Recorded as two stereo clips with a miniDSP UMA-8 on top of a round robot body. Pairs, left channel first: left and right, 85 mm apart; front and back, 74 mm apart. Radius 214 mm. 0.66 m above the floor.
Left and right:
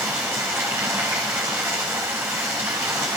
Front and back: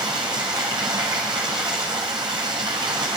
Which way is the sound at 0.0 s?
155° right.